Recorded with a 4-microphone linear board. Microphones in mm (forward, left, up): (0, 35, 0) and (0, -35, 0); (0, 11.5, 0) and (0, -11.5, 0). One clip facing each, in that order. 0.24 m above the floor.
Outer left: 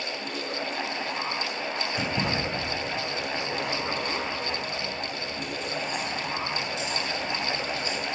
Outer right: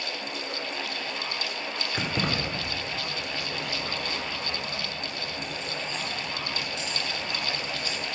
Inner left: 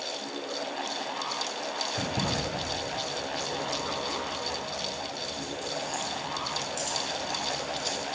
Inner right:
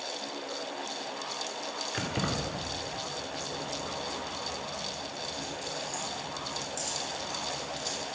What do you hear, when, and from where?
1.9 s keys jangling: 55° right (ahead or behind), 2 m; by 8.0 s 35° left (ahead or behind), 2.5 m